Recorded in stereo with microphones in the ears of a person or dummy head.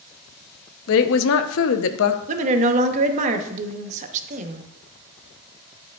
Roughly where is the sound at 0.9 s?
Left.